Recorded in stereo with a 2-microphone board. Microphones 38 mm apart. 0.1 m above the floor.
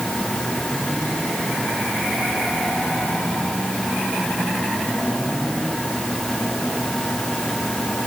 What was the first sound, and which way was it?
Only background noise.